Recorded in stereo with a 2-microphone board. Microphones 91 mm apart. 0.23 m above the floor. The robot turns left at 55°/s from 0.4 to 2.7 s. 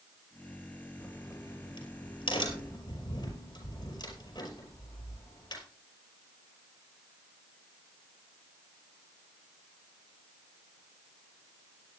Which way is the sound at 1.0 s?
30° left (ahead or behind).